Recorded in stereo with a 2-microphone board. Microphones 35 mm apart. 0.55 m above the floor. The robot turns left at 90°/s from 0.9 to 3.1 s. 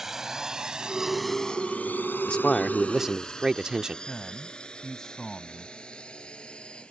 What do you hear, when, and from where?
0.0 s a drone: 15° right (ahead or behind); by 6.9 s 30° left (ahead or behind)
2.3 s a man speaking: 50° left; by 4.0 s 25° right
4.1 s a man speaking: 15° left (ahead or behind)